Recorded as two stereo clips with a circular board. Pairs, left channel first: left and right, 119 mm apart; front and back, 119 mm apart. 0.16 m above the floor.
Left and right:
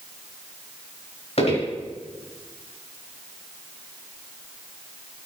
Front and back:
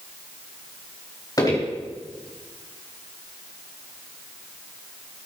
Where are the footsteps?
60° left, 4.5 m.